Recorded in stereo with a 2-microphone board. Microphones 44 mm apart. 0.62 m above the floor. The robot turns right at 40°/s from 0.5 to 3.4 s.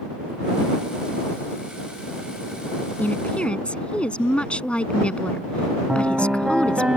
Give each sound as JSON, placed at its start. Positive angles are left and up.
{"t": 3.0, "sound": "a woman speaking", "side_deg": 40}
{"t": 5.9, "sound": "a piano", "side_deg": -20}